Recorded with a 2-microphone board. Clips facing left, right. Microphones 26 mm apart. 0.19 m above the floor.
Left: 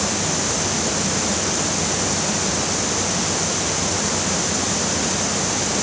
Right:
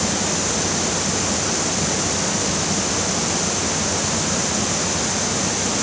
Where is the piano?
I don't hear a piano.